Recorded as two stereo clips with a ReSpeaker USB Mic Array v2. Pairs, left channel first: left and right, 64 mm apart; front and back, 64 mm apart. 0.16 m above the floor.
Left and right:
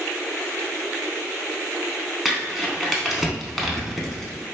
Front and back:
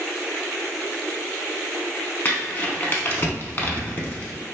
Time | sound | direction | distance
2.2 | crumpling | straight ahead | 0.5 m